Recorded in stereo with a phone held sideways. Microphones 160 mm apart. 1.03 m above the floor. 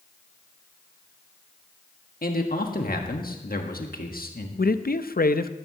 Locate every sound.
2.2 s a man speaking: 75° left (ahead or behind), 1.5 m
4.6 s a man speaking: 80° left, 0.6 m